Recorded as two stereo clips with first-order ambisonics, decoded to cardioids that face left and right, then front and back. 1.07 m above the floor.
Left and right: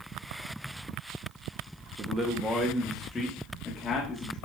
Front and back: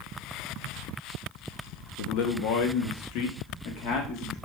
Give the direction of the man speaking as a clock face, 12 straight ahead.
1 o'clock.